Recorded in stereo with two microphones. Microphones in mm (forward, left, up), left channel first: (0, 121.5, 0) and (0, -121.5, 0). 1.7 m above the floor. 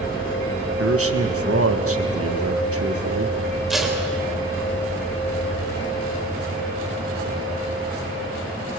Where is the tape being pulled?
Centre (ahead or behind), 3.5 m.